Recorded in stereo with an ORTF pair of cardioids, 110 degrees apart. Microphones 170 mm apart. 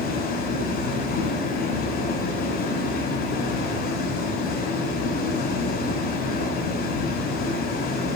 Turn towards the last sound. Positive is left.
turn(degrees=70)